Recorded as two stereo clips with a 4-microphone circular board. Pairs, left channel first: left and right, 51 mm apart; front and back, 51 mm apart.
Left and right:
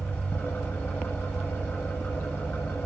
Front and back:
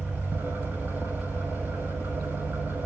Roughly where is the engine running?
Behind left.